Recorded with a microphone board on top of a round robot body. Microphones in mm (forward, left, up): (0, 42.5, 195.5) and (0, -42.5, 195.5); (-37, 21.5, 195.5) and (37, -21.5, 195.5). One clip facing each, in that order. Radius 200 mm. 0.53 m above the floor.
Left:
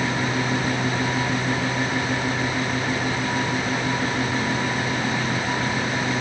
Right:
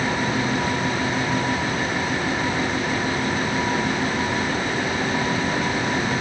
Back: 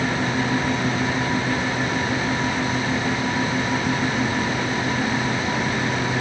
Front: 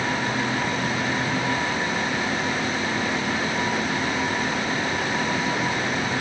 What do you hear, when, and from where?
Only background noise.